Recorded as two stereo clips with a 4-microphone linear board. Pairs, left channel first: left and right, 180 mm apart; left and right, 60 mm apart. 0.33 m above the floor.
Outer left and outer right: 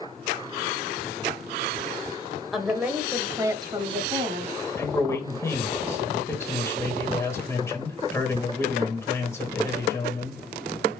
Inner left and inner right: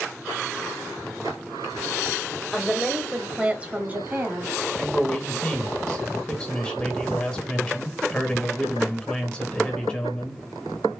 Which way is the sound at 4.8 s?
15° left (ahead or behind).